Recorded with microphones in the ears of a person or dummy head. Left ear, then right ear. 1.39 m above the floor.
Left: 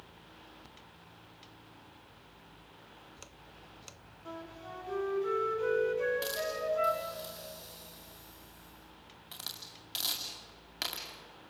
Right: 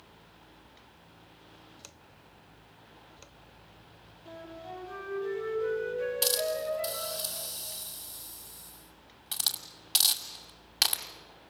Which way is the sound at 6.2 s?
20° right (ahead or behind).